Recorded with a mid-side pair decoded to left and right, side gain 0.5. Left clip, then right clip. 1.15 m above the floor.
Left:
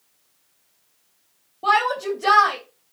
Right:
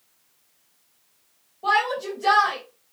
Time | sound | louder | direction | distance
1.6 | a shout | left 3 dB | 45° left | 3.5 m